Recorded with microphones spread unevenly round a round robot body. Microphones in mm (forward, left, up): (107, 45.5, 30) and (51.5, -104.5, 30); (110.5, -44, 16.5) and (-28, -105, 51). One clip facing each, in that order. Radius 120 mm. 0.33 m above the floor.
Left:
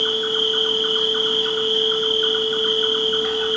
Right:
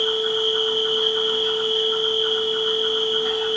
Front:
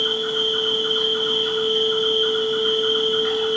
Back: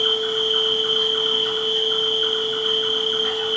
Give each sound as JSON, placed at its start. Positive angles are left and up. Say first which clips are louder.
{"t": 0.0, "sound": "an insect", "louder": "right 1 dB, back 1 dB", "azimuth_deg": 105, "distance_m": 0.8}